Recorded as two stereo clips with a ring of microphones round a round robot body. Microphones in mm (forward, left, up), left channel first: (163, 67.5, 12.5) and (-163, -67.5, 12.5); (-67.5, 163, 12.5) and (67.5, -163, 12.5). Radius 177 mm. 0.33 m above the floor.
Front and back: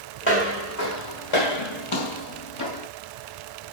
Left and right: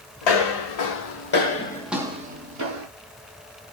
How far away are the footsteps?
About 1.1 m.